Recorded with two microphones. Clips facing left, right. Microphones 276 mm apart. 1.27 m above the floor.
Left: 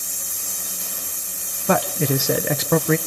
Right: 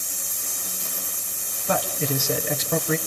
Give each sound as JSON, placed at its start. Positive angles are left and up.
{"t": 1.7, "sound": "a man speaking", "side_deg": 70, "distance_m": 0.7}